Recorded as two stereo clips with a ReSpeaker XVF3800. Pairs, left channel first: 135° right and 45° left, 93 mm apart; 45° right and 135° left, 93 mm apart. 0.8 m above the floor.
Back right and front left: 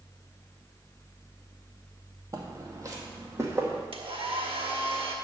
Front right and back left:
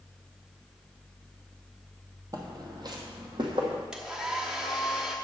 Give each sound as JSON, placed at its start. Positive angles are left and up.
{"t": 2.3, "sound": "footsteps", "azimuth_deg": 90, "distance_m": 1.6}
{"t": 3.9, "sound": "a hair dryer", "azimuth_deg": 50, "distance_m": 1.2}